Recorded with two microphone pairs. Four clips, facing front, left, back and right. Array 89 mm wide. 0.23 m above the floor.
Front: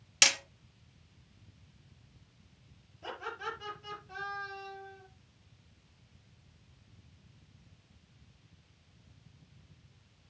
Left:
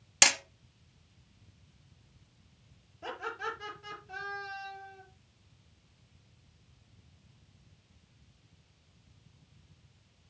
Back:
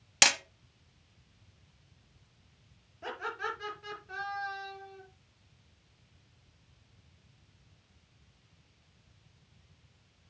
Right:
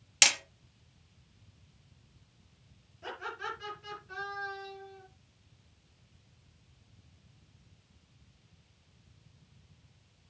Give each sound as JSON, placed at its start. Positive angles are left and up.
{"t": 0.2, "sound": "hammering", "azimuth_deg": 145, "distance_m": 0.8}
{"t": 3.0, "sound": "laughter", "azimuth_deg": 160, "distance_m": 5.0}